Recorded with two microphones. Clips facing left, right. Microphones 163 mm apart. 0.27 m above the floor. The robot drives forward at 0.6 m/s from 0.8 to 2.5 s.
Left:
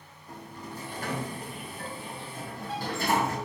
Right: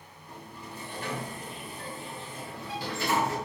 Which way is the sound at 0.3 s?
45° left (ahead or behind).